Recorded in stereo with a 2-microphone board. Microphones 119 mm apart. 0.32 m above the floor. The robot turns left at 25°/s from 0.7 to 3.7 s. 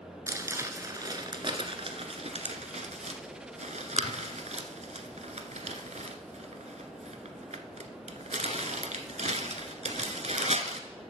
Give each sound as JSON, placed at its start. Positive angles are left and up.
{"t": 0.3, "sound": "crumpling", "side_deg": -25, "distance_m": 1.0}